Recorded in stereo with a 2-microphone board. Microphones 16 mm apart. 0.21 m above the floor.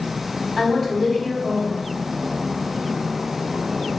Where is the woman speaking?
20° right (ahead or behind), 1.4 m.